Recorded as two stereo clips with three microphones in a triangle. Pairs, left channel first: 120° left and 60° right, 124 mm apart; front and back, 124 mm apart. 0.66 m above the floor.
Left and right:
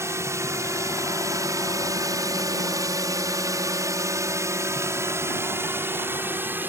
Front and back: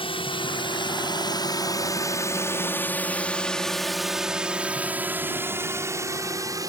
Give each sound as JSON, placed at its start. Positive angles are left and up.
{"t": 0.0, "sound": "a drone", "azimuth_deg": 0}